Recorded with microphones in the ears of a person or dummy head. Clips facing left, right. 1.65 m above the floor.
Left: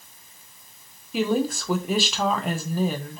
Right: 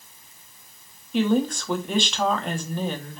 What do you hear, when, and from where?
1.1 s a woman speaking: 5° left (ahead or behind), 0.9 m